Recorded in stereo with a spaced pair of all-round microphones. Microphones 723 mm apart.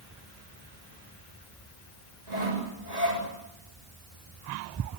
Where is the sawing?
80° right, 7 m.